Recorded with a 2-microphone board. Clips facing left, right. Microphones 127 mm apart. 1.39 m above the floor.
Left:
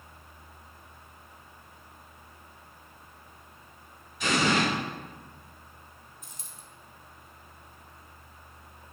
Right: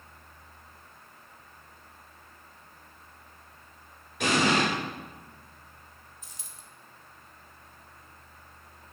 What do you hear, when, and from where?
4.2 s an explosion: 75° right (ahead or behind), 4 m
6.2 s a dropped coin: 55° left (ahead or behind), 1.3 m